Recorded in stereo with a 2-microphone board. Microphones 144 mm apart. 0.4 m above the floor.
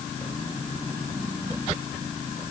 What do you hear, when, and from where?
Only background noise.